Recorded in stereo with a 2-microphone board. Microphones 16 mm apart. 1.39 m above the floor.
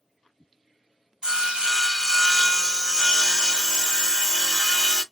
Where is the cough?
No cough in this recording.